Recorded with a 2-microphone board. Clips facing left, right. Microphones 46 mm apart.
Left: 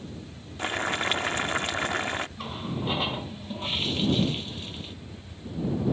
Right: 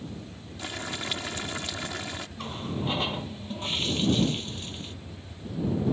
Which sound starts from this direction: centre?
A running tap, at 2.4 s.